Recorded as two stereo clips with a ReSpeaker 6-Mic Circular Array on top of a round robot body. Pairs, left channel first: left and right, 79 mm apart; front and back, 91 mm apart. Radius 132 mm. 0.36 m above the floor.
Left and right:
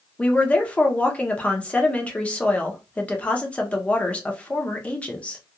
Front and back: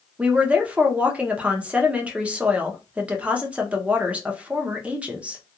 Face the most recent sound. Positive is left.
turn(degrees=130)